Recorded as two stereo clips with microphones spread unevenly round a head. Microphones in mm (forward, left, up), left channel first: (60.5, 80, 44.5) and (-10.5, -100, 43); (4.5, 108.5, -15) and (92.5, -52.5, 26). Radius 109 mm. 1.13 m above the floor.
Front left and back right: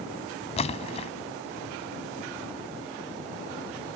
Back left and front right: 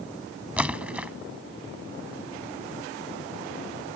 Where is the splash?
15° left.